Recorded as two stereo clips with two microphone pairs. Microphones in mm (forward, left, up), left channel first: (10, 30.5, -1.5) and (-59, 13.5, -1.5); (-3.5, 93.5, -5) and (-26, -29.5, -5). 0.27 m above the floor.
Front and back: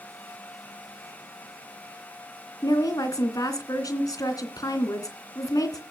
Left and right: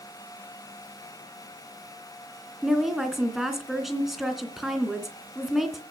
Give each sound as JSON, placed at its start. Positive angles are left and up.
{"t": 2.6, "sound": "a woman speaking", "azimuth_deg": -10, "distance_m": 2.5}